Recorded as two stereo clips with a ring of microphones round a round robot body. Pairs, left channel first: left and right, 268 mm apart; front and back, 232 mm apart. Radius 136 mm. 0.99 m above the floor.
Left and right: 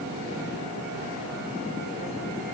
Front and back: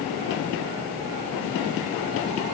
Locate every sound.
Only background noise.